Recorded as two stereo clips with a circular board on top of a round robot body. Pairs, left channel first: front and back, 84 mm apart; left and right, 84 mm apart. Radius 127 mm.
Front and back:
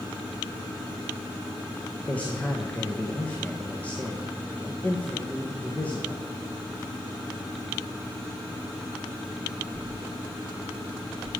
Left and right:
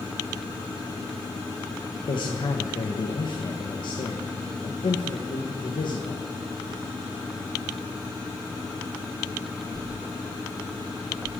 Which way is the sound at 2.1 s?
75° left.